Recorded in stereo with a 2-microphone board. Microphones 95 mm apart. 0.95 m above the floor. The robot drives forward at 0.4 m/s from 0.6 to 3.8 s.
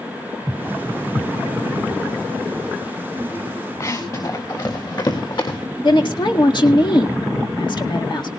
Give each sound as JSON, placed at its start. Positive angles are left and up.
{"t": 3.8, "sound": "running footsteps", "side_deg": 40, "distance_m": 4.5}
{"t": 5.8, "sound": "a woman speaking", "side_deg": 55, "distance_m": 1.9}